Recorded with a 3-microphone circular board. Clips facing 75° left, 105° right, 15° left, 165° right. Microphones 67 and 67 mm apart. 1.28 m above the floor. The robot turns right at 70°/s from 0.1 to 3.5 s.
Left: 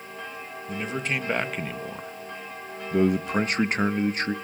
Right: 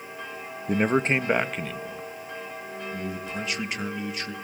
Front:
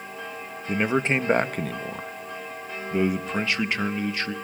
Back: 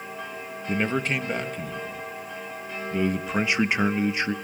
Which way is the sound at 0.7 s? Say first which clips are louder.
Right 7 dB, front 2 dB; 75° right.